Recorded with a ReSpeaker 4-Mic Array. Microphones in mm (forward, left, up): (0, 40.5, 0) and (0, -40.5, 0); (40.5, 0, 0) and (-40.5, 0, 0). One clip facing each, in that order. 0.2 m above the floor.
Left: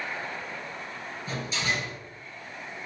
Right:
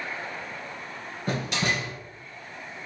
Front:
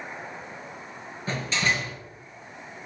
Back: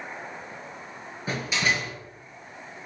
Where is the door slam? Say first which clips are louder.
Right 4 dB, even; 105° right, 2 m.